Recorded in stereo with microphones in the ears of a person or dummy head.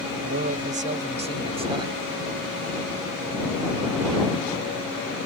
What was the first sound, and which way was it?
A man speaking, 45° right (ahead or behind).